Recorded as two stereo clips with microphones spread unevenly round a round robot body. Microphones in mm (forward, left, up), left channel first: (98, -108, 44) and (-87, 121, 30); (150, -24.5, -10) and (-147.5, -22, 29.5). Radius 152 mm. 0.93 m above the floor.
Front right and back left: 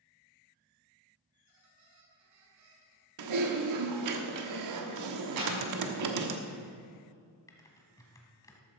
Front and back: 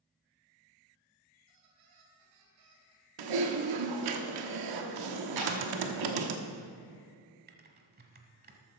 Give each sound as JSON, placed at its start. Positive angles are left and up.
{"t": 1.3, "sound": "a squeak", "azimuth_deg": 160, "distance_m": 3.5}
{"t": 3.2, "sound": "typing on a keyboard", "azimuth_deg": 160, "distance_m": 1.1}
{"t": 5.4, "sound": "a clap", "azimuth_deg": 165, "distance_m": 6.0}
{"t": 7.5, "sound": "typing on a keyboard", "azimuth_deg": -130, "distance_m": 1.4}